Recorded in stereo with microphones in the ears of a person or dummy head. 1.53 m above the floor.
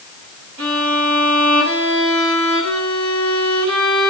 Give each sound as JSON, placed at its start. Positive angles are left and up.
{"t": 0.6, "sound": "a violin", "side_deg": -80, "distance_m": 6.5}